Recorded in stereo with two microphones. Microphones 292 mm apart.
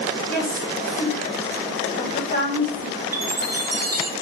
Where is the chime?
55° right (ahead or behind), 0.8 m.